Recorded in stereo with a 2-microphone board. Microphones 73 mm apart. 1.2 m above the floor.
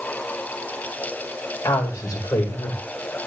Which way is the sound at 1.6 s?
55° left (ahead or behind).